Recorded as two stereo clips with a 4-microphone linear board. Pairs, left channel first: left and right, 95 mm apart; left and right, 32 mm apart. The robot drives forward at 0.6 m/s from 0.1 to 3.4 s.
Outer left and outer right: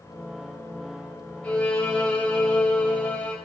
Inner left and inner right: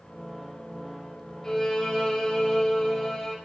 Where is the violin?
15° left (ahead or behind), 5 m; by 3.4 s 20° left (ahead or behind), 4 m.